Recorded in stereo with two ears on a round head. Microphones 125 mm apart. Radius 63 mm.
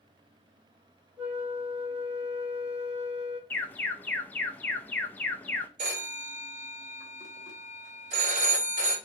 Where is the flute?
10° right (ahead or behind), 1.2 m.